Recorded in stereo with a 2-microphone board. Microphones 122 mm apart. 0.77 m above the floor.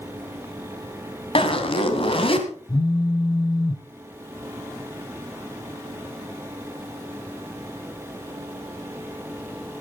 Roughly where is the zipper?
Left.